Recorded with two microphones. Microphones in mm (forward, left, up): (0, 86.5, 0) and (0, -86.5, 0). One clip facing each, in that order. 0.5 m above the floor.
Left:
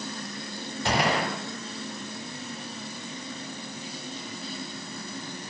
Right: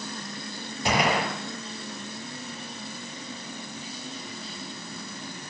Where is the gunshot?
15° right (ahead or behind), 7 m.